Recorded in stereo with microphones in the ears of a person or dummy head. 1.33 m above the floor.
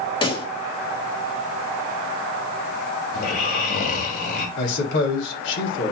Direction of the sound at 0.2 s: 25° left (ahead or behind).